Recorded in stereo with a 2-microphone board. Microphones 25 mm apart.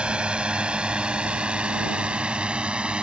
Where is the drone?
45° right (ahead or behind).